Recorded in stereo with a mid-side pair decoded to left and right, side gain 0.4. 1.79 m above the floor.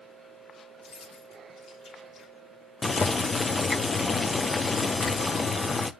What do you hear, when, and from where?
0.8 s keys jangling: 70° left, 3 m
2.8 s boiling: 35° left, 1.1 m